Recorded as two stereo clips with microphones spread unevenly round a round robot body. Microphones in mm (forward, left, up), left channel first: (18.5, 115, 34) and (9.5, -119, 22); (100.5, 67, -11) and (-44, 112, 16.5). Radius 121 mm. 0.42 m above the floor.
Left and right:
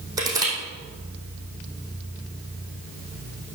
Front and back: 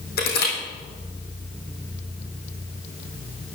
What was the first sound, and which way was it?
Crushing, 20° right.